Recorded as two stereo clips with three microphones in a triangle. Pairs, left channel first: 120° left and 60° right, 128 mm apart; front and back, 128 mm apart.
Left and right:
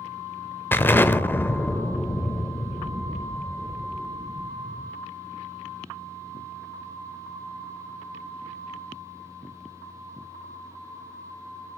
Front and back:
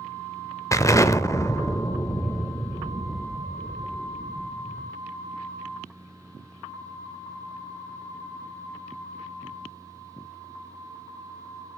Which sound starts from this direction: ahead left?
An explosion, at 0.7 s.